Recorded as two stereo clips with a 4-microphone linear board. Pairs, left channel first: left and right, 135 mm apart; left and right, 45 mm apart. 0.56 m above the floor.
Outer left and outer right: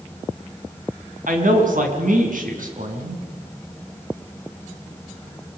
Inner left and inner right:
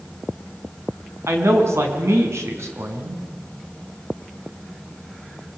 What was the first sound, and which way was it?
A man speaking, 80° right.